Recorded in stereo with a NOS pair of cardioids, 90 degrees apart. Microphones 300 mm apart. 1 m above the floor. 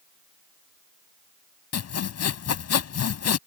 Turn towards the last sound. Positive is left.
turn(degrees=55)